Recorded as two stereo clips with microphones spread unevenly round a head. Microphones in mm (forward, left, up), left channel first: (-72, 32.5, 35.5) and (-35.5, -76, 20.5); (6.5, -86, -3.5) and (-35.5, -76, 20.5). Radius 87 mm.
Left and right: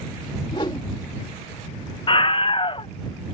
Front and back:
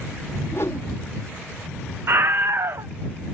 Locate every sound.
0.5 s a whoosh: 45° left
2.1 s a scream: 150° left